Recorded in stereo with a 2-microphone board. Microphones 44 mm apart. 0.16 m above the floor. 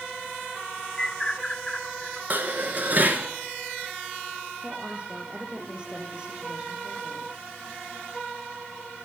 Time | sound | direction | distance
1.0 | a bird | 15° left (ahead or behind) | 0.6 m
2.3 | dishes clattering | 40° right (ahead or behind) | 1.4 m
4.6 | a woman speaking | 25° right (ahead or behind) | 6.5 m